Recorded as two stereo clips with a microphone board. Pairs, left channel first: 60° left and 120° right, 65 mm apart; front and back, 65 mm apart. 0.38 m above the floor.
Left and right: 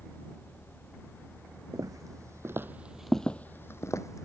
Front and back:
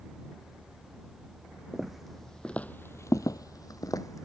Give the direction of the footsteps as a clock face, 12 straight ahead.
3 o'clock.